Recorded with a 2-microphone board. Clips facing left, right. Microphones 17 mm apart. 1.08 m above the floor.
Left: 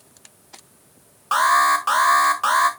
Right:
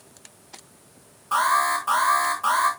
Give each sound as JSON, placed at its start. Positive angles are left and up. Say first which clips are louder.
{"t": 1.3, "sound": "an alarm", "louder": "left 4 dB", "side_deg": 55, "distance_m": 1.5}